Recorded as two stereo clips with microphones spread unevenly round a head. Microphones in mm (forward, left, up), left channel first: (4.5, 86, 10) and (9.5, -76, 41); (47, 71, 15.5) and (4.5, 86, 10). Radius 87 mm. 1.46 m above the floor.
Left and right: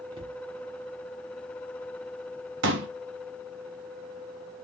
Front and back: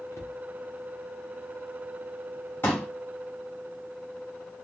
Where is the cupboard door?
25° right, 0.6 m.